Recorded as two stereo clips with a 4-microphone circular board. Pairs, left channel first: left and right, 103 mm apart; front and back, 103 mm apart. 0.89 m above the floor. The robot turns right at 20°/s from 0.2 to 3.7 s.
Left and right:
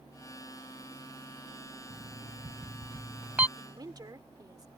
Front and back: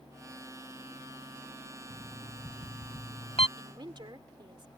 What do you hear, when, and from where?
1.9 s an alarm clock: 45° right; by 3.5 s 15° right
3.6 s a woman speaking: 140° right